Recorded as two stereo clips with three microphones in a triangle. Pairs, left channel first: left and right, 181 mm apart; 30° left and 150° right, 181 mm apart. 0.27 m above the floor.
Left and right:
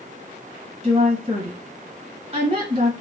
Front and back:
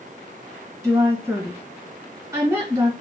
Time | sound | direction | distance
0.8 | a woman speaking | 90° right | 1.2 m